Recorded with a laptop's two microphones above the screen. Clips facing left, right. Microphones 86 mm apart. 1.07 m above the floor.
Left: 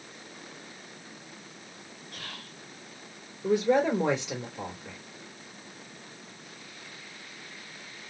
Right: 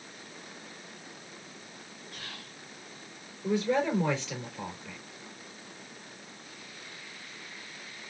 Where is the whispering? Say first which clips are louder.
Left 2 dB; 65° left (ahead or behind), 2.5 m.